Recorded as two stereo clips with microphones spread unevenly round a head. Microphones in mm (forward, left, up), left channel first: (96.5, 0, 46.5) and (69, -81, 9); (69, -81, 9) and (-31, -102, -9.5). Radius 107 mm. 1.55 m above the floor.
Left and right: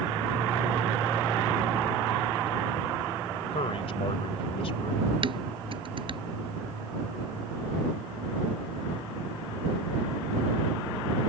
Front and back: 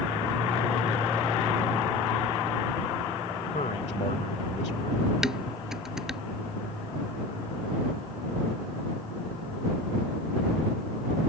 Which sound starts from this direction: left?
A man speaking, at 3.5 s.